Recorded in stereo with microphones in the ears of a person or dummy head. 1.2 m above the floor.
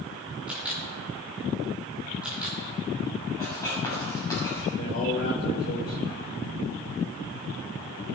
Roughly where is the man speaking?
Left.